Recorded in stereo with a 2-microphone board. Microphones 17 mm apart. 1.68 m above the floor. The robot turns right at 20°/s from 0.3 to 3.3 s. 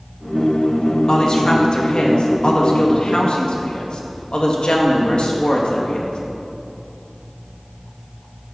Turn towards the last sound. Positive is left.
turn(degrees=100)